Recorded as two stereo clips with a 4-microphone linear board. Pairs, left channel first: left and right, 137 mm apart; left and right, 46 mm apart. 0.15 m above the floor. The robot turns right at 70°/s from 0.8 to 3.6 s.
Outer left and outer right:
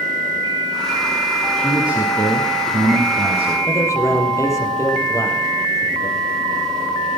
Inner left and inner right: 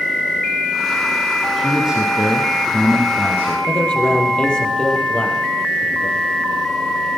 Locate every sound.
1.6 s a man speaking: 170° left, 2 m; by 3.6 s 50° right, 2 m
3.7 s a man speaking: 20° left (ahead or behind), 3.5 m